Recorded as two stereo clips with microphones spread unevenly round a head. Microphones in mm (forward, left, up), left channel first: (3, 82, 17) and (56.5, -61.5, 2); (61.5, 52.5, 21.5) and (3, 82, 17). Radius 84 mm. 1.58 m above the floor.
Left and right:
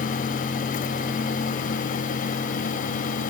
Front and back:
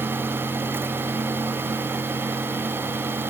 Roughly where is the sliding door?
I don't hear a sliding door.